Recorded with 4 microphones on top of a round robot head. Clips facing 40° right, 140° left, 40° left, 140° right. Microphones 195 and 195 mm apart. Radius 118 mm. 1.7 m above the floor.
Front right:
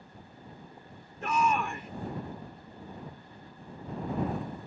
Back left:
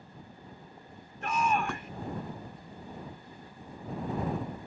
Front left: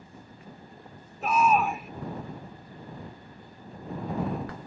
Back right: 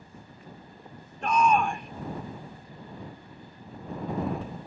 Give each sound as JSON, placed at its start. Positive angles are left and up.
{"t": 1.2, "sound": "a shout", "azimuth_deg": -50}